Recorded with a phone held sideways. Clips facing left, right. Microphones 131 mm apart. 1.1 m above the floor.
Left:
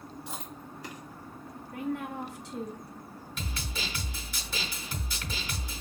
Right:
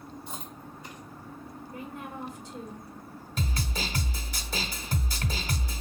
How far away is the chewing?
About 1.8 m.